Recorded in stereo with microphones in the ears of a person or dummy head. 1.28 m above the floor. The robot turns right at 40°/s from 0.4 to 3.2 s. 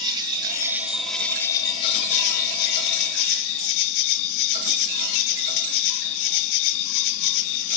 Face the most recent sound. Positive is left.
turn(degrees=90)